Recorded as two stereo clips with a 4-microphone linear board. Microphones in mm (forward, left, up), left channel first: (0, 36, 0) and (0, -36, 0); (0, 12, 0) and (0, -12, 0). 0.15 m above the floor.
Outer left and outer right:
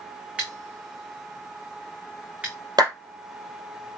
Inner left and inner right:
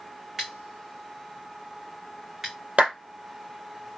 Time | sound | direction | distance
0.4 | scissors | 15° right (ahead or behind) | 3 m
2.8 | a clap | 70° right (ahead or behind) | 3 m